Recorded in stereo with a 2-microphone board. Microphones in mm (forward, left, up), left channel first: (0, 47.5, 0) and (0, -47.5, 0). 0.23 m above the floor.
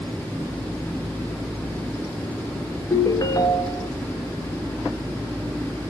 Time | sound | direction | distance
2.9 | a ringtone | 40° left (ahead or behind) | 1.4 m